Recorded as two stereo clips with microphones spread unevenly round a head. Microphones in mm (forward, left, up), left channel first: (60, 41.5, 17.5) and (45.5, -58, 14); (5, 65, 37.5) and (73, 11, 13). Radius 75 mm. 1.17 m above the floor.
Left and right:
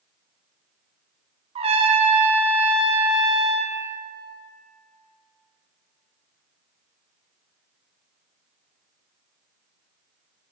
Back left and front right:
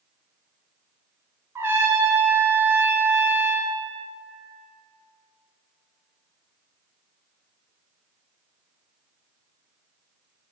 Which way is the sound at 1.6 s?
95° right.